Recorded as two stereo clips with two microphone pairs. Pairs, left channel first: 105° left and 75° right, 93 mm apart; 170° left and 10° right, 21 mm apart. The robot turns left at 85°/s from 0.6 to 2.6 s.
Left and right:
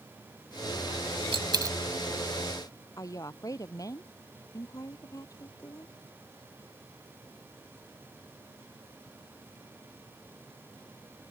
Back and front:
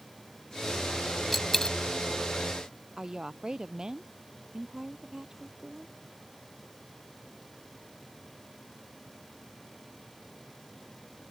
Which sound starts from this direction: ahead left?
A woman speaking, at 3.0 s.